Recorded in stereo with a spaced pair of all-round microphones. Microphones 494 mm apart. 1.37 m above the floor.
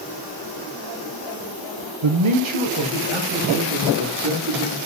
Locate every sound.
2.0 s a man speaking: 65° right (ahead or behind), 0.6 m